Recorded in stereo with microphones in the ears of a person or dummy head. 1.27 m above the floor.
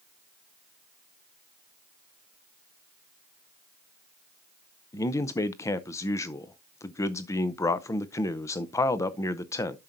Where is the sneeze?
I don't hear a sneeze.